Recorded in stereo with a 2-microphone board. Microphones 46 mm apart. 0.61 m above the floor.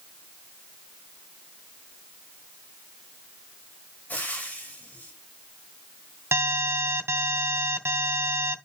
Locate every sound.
4.1 s frying: 40° left (ahead or behind), 3 m
6.3 s an alarm: 65° right (ahead or behind), 1.5 m